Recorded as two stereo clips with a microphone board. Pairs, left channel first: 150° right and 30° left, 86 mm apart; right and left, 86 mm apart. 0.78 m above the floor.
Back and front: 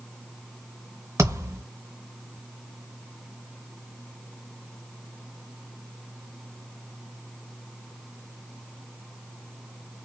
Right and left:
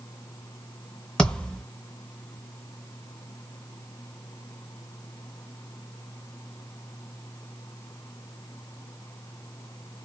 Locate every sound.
1.2 s a thud: 15° right, 0.7 m